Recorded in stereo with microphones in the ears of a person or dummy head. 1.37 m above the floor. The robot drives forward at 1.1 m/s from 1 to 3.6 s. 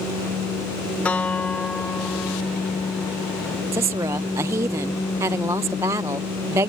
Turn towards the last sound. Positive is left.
turn(degrees=-20)  # may be behind; listen again after turning